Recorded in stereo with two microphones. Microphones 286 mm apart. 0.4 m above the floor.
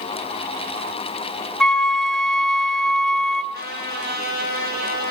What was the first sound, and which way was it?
A flute, centre (ahead or behind).